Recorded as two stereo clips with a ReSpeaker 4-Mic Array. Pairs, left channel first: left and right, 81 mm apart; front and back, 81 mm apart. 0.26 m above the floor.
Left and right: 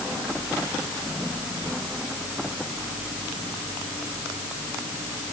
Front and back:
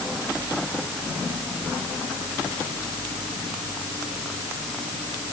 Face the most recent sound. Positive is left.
No sound to turn to.